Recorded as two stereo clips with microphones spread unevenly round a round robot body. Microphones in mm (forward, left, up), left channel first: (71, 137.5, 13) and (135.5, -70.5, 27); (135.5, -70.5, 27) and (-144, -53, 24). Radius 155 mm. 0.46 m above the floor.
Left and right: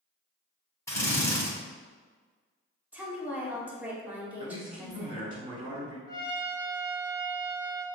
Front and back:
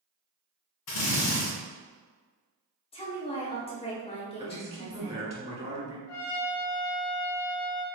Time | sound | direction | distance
0.9 | a drill | 30° left | 1.9 m
2.9 | a woman speaking | 5° left | 0.9 m
4.4 | a man speaking | 135° right | 1.6 m
6.1 | a trumpet | 40° left | 1.2 m